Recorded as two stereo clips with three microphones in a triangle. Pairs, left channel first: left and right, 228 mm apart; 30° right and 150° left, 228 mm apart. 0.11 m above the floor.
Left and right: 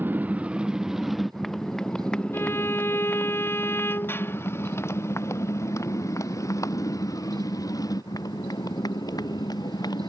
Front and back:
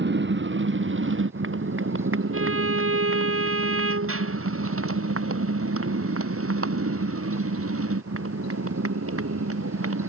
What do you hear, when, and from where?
0.0 s a motorcycle: 170° right; by 10.1 s 165° left
2.3 s a violin: 170° left